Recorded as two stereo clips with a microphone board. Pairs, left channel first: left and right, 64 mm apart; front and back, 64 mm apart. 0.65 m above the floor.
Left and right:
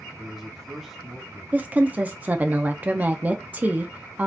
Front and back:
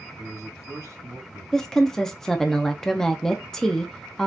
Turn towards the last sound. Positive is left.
turn(degrees=-75)